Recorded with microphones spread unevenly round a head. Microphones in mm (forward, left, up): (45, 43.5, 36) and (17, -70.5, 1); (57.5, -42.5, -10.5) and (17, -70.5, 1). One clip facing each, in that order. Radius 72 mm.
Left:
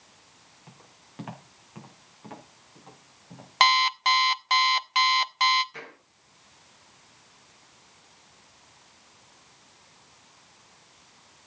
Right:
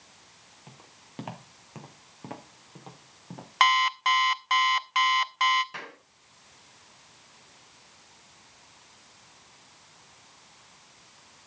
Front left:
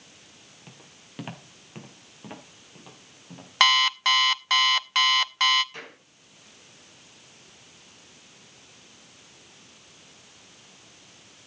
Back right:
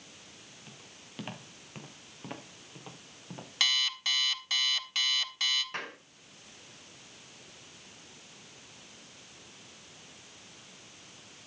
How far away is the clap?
About 9.5 m.